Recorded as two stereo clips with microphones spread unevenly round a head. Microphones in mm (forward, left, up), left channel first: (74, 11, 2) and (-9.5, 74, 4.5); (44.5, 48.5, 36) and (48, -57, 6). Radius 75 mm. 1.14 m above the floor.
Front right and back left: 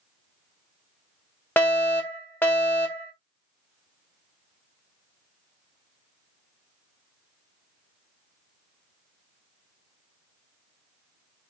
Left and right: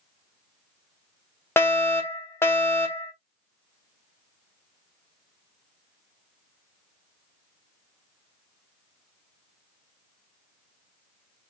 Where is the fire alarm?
20° left, 1.3 m.